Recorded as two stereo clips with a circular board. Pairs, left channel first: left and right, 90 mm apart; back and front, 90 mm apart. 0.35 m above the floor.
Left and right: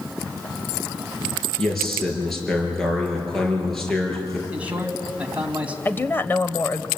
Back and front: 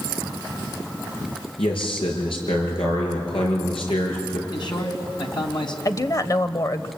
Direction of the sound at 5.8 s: 150° left.